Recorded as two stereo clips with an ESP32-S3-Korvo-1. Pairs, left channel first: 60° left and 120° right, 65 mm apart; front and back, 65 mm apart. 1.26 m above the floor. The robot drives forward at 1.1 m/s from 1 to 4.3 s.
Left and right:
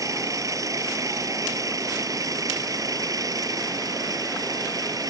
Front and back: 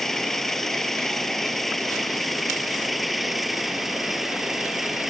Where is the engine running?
85° right; by 5.1 s 95° right.